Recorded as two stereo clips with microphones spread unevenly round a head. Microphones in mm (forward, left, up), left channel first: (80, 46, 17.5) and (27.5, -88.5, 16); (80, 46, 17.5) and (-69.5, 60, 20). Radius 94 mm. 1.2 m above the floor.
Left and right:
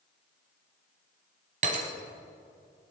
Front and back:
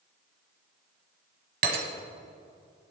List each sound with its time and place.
1.6 s breaking glass: 160° right, 1.9 m